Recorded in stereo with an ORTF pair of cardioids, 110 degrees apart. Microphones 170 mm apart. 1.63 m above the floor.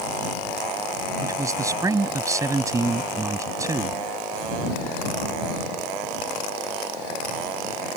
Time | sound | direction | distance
1.2 | a man speaking | 20° right | ?